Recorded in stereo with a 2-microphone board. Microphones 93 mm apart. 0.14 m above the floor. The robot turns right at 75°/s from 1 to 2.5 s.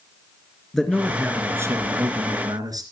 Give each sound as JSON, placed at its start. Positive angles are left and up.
{"t": 0.7, "sound": "a man speaking", "azimuth_deg": 175, "distance_m": 2.5}